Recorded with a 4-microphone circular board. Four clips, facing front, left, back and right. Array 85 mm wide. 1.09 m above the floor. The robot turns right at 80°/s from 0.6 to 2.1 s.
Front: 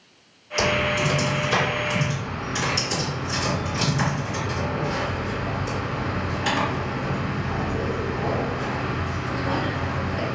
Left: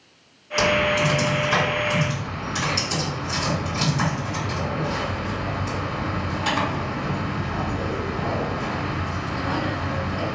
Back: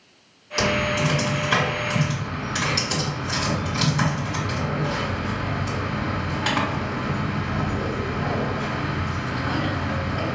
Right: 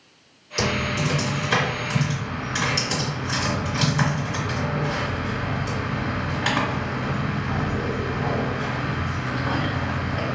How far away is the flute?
I don't hear a flute.